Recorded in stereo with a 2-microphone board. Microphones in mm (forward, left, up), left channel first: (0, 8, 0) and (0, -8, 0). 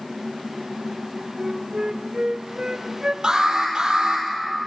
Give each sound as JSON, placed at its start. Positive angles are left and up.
{"t": 1.4, "sound": "a flute", "side_deg": -60, "distance_m": 0.6}
{"t": 3.2, "sound": "an alarm", "side_deg": -60, "distance_m": 4.5}